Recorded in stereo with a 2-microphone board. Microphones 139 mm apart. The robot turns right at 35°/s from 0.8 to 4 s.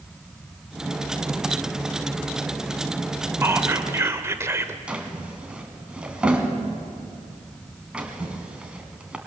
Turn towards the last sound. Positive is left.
turn(degrees=-5)  # may be behind; listen again after turning